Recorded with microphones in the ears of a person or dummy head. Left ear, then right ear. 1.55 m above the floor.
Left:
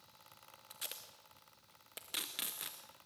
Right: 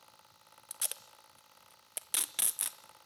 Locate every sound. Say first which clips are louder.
0.7 s tape being pulled: right 5 dB; 30° right (ahead or behind), 0.6 m